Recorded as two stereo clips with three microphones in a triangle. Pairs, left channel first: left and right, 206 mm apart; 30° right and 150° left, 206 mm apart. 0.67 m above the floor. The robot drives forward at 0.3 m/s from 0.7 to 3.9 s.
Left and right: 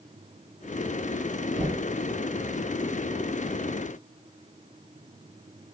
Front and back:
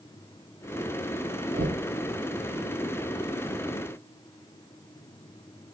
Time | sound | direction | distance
1.5 | knocking | 170° left | 1.1 m